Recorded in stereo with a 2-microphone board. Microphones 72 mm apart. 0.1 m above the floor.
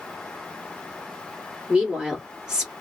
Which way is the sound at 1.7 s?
15° right (ahead or behind).